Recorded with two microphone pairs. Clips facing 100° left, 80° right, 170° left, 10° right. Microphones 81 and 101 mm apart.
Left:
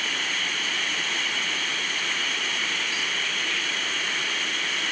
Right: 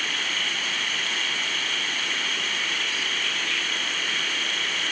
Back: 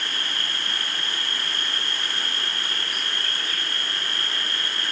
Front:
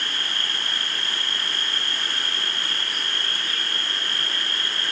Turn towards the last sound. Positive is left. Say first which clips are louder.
# even, even
turn(degrees=30)